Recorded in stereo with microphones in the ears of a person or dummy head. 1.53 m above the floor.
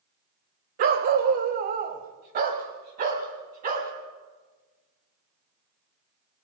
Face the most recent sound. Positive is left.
turn(degrees=-50)  # may be behind; listen again after turning